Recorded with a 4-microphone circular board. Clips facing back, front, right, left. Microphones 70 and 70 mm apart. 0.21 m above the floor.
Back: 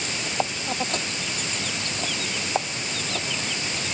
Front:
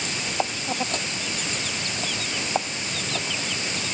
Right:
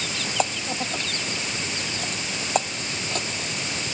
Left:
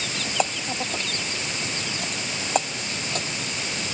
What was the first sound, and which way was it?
Only background noise.